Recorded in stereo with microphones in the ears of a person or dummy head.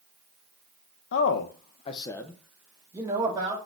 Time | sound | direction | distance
1.1 | a man speaking | 70° left (ahead or behind) | 0.7 m